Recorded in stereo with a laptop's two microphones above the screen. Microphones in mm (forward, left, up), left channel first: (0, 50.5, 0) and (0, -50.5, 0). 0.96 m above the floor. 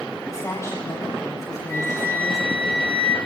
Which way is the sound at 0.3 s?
35° left (ahead or behind).